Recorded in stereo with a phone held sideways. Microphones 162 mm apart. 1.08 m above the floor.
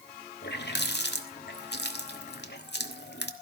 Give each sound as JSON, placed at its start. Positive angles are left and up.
{"t": 0.4, "sound": "a running tap", "side_deg": 85, "distance_m": 1.4}